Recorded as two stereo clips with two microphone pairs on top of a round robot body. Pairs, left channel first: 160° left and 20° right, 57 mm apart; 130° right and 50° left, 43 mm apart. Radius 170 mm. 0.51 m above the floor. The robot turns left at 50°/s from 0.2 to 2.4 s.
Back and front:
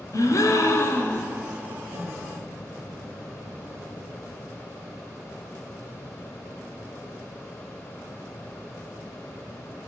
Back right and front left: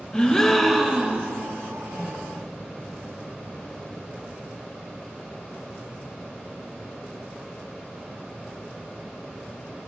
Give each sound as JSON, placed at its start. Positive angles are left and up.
{"t": 0.1, "sound": "a gasp", "azimuth_deg": 155, "distance_m": 2.5}
{"t": 1.9, "sound": "a microwave", "azimuth_deg": -35, "distance_m": 1.7}